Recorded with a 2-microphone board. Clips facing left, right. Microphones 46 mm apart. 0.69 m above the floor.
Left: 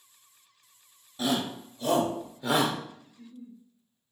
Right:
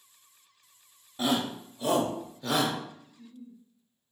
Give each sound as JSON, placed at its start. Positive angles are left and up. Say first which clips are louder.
{"t": 1.2, "sound": "a shout", "louder": "right 1 dB", "side_deg": -30, "distance_m": 0.9}
{"t": 3.1, "sound": "a giggle", "louder": "left 1 dB", "side_deg": 35, "distance_m": 0.7}